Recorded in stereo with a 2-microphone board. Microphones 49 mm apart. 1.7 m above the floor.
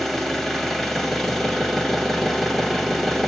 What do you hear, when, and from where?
0.0 s an engine running: 5° left (ahead or behind), 1.1 m